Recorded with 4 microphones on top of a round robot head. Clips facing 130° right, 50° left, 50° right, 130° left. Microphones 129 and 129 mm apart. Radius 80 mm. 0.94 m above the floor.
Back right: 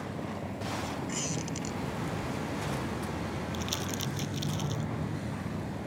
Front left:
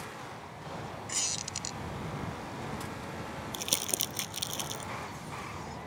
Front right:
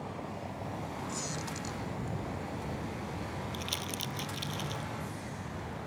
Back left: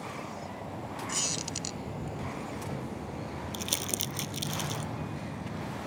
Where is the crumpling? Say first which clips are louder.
Back right 4 dB, back left 2 dB; 85° left.